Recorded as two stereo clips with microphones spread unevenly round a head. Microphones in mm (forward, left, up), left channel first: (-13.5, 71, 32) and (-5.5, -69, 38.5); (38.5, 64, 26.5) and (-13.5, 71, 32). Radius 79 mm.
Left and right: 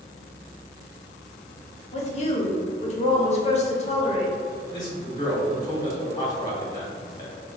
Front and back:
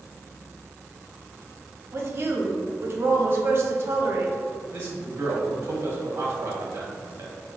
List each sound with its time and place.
1.9 s a woman speaking: 135° left, 0.9 m
4.7 s a man speaking: 155° left, 1.8 m